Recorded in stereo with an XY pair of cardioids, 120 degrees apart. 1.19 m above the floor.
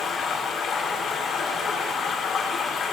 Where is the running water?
60° left, 3 m.